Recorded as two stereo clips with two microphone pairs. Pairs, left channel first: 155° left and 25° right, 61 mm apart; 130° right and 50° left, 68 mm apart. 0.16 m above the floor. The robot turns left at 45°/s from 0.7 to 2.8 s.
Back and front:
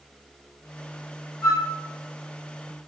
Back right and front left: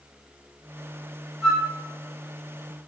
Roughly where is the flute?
Left.